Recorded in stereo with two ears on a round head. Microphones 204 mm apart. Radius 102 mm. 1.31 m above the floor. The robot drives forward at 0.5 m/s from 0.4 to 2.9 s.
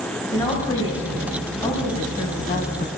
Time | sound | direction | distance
0.3 | a woman speaking | 20° left (ahead or behind) | 1.9 m